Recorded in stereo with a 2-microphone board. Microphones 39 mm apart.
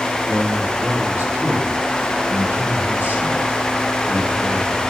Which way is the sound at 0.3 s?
65° right (ahead or behind).